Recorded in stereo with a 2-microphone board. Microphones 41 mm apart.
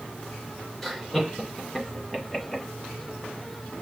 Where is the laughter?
5° left (ahead or behind), 2.5 m; by 2.6 s centre (ahead or behind), 1.7 m.